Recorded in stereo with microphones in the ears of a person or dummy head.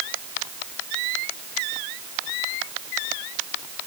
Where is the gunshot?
I don't hear a gunshot.